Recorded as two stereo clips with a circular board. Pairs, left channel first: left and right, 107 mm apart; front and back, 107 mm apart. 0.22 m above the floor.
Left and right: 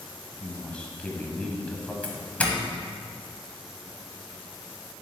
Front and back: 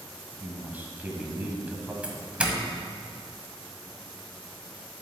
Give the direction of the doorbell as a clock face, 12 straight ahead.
8 o'clock.